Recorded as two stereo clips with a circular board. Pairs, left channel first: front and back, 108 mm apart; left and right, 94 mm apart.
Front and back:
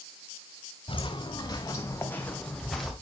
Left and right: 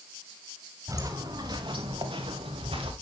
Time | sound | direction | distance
0.9 | footsteps | 35° right | 3 m